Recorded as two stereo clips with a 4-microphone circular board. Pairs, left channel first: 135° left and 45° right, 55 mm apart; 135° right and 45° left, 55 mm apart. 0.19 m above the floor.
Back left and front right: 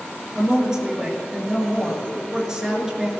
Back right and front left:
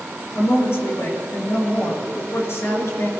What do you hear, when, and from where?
0.3 s a woman speaking: 120° right, 3 m